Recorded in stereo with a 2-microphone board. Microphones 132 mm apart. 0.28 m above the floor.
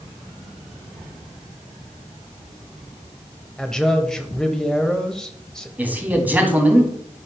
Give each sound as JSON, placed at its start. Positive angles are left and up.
{"t": 3.6, "sound": "a man speaking", "side_deg": 5, "distance_m": 1.1}
{"t": 5.8, "sound": "a man speaking", "side_deg": -10, "distance_m": 1.9}